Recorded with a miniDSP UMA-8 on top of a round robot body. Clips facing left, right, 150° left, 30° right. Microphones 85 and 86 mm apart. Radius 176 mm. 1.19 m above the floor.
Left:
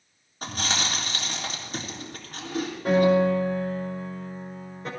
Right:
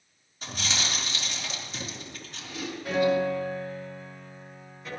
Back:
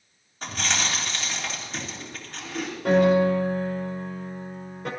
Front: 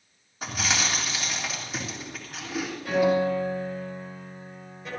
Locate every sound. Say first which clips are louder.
0.4 s chewing: left 4 dB, even; 50° left, 3.5 m
2.9 s a piano: left 5 dB, back 4 dB; 135° left, 4.5 m